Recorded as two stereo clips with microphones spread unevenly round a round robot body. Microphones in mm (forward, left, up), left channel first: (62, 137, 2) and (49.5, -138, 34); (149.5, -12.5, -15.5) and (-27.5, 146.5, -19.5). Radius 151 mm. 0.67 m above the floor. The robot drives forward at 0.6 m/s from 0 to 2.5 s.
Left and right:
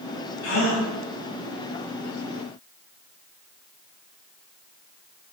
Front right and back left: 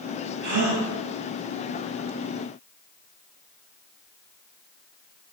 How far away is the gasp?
About 4 m.